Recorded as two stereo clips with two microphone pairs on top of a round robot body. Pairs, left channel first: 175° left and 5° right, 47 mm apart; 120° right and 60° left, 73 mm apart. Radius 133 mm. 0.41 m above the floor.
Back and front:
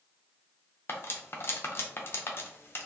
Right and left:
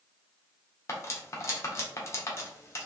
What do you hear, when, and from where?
0.9 s cutlery clinking: 175° right, 0.7 m